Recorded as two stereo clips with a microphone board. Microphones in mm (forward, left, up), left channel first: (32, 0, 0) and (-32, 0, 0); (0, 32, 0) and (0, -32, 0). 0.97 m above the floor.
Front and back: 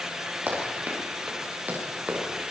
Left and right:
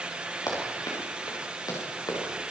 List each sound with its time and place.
0.5 s running footsteps: 120° left, 7 m; by 2.2 s 115° left, 8.5 m